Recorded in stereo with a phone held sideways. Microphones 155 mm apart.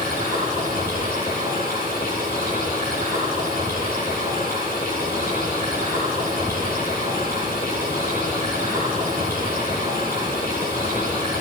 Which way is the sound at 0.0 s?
65° left (ahead or behind).